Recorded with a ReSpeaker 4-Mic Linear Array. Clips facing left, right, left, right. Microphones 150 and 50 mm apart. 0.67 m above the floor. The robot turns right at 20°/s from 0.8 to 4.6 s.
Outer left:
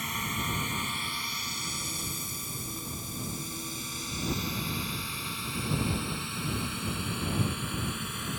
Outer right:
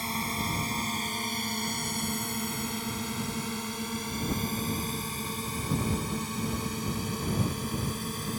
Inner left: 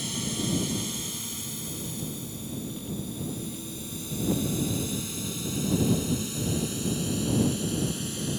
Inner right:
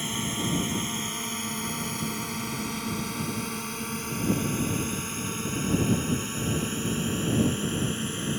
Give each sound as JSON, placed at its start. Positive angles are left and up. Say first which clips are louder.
{"t": 0.0, "sound": "a drone", "louder": "outer right 3 dB, inner right 2 dB", "side_deg": -35}